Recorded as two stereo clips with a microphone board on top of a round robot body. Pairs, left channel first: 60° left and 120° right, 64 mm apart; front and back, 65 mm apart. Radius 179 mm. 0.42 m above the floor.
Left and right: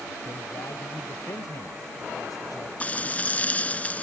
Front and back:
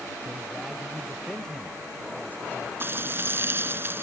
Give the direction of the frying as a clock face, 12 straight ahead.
8 o'clock.